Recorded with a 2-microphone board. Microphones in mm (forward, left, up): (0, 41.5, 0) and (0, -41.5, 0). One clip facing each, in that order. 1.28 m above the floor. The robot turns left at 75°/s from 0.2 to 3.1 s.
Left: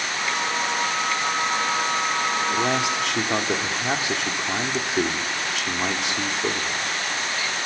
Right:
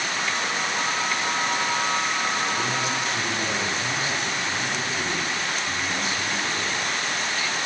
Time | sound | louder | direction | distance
2.5 | a man speaking | left 3 dB | 125° left | 3.5 m